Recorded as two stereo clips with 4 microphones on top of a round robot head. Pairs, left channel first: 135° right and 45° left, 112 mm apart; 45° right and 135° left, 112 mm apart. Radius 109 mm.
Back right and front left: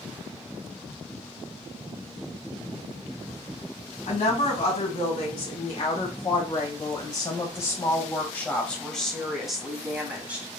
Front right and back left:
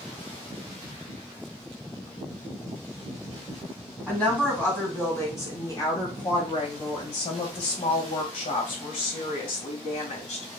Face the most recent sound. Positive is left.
turn(degrees=-30)